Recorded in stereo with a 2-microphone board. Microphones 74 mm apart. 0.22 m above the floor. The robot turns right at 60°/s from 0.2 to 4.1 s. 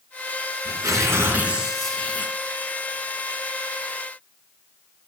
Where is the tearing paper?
65° right, 2.5 m; by 3.4 s 100° left, 2.5 m.